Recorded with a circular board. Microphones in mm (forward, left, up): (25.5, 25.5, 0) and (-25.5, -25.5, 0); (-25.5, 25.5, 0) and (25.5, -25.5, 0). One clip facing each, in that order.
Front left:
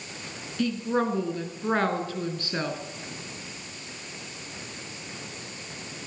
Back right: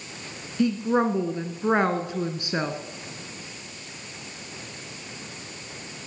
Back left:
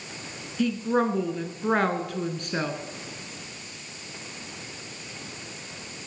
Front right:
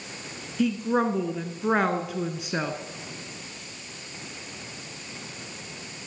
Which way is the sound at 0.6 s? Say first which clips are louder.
Back right 4 dB, even; 120° right.